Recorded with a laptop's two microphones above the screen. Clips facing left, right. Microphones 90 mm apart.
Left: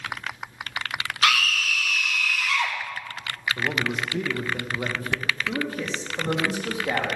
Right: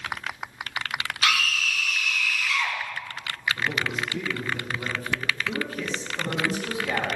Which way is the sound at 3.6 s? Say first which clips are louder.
Left 4 dB; 50° left (ahead or behind).